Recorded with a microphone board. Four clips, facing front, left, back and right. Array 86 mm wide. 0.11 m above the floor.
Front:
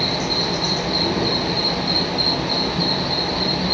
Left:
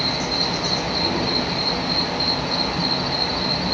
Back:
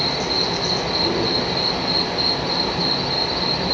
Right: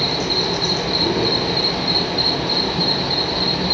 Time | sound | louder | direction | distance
0.0 | an insect | right 3 dB, even | 90° right | 2 m